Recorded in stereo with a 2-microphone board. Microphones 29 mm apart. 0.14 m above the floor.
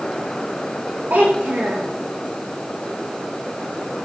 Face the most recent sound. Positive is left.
turn(degrees=-75)  # may be behind; listen again after turning